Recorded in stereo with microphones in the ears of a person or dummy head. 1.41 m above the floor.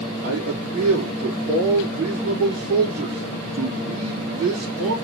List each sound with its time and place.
0.2 s a man speaking: 55° right (ahead or behind), 3.5 m